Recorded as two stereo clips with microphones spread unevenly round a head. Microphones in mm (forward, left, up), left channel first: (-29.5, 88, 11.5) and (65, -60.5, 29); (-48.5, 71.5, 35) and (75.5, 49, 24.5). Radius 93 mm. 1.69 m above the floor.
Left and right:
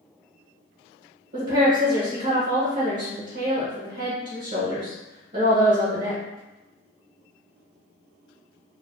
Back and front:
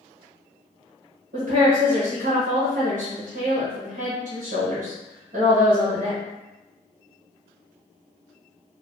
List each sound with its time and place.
1.3 s a woman speaking: 30° right, 1.2 m